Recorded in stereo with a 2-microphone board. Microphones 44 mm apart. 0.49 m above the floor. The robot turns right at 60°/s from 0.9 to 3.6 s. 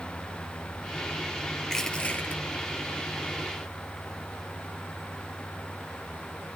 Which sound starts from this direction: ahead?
Crushing, at 1.6 s.